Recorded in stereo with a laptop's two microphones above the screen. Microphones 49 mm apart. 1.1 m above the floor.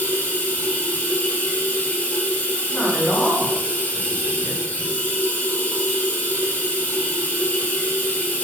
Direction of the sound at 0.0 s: 40° left (ahead or behind).